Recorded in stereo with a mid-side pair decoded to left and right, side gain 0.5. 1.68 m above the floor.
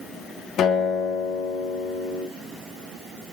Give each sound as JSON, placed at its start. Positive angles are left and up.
{"t": 0.6, "sound": "a guitar", "azimuth_deg": 60, "distance_m": 3.5}